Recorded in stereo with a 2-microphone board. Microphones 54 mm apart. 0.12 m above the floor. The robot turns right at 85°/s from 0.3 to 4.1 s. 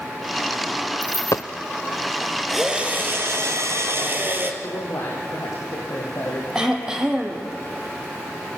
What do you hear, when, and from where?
1.0 s a dropped coin: 40° left (ahead or behind), 0.9 m; by 1.4 s 75° left (ahead or behind), 0.9 m
2.5 s a drill: 175° left, 3.5 m; by 4.5 s 45° right, 3.5 m
4.6 s a man speaking: 70° left (ahead or behind), 5 m
6.5 s throat clearing: 15° right (ahead or behind), 4 m